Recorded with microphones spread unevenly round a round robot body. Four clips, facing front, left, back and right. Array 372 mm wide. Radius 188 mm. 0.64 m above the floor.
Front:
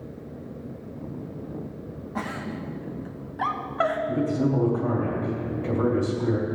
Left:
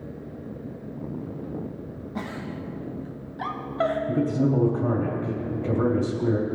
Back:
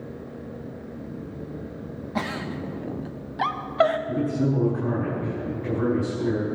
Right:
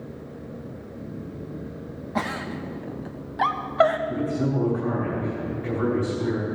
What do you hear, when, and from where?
2.1 s a giggle: 110° right, 1.0 m
4.1 s a man speaking: 85° left, 2.5 m